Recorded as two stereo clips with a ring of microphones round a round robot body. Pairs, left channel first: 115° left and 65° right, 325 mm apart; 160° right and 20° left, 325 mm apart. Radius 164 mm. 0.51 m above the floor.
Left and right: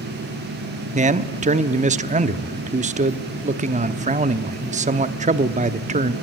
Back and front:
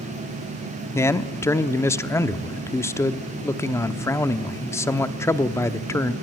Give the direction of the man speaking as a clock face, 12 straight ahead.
3 o'clock.